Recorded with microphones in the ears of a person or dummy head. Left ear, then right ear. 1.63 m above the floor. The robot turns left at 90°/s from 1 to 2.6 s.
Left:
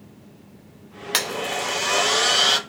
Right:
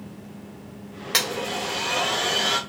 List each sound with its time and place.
1.1 s a blender: 15° left (ahead or behind), 0.6 m; by 2.6 s 30° left (ahead or behind), 0.6 m